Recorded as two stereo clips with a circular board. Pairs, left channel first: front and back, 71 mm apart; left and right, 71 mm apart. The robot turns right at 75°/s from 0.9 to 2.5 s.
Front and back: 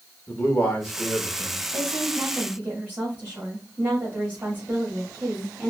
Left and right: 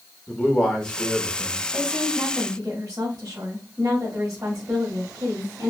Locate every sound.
0.3 s a man speaking: 15° left, 1.1 m; by 1.6 s 70° left, 1.1 m
1.7 s a woman speaking: straight behind, 1.8 m; by 5.7 s 125° right, 1.8 m